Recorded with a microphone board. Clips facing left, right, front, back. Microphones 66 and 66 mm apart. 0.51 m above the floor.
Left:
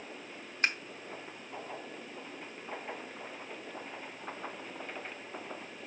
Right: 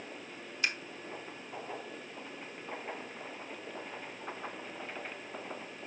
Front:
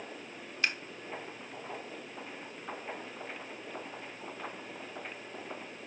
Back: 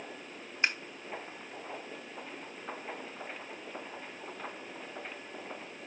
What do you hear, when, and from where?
0.6 s scissors: 120° left, 0.9 m